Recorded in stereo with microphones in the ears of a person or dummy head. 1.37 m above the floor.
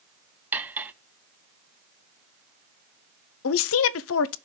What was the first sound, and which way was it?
Cutlery clinking, 5° right (ahead or behind).